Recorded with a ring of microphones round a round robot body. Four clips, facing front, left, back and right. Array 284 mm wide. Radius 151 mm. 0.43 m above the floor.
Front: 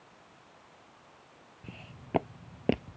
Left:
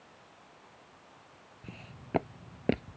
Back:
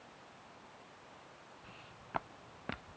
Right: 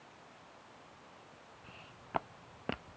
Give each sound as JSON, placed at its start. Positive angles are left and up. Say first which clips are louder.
{"t": 1.6, "sound": "footsteps", "louder": "left 9 dB, front 5 dB", "azimuth_deg": 40}